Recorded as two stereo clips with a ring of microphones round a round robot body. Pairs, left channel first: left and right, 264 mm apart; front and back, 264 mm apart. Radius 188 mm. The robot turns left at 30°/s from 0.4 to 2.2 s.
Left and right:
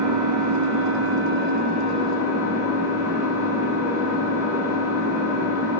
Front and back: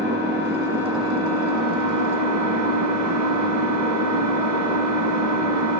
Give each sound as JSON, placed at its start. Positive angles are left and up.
{"t": 0.0, "sound": "an engine running", "azimuth_deg": -120, "distance_m": 1.4}